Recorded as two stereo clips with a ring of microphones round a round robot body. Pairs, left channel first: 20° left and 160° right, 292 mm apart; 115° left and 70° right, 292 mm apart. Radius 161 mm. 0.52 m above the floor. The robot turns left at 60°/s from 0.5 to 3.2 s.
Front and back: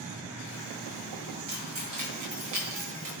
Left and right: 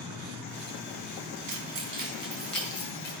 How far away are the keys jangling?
About 4 m.